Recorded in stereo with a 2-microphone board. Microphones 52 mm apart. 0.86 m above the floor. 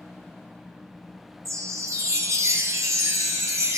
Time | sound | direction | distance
1.4 | a chime | 75° right (ahead or behind) | 1.0 m